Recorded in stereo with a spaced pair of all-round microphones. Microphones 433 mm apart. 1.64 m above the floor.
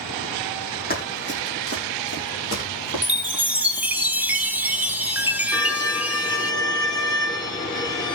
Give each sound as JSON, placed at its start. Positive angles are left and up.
{"t": 0.9, "sound": "running footsteps", "side_deg": 20, "distance_m": 5.5}
{"t": 3.0, "sound": "a chime", "side_deg": -5, "distance_m": 1.6}
{"t": 5.5, "sound": "a violin", "side_deg": 10, "distance_m": 1.4}